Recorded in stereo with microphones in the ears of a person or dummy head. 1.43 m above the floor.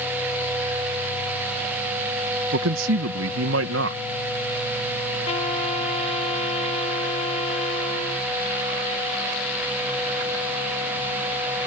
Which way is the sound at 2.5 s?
80° right.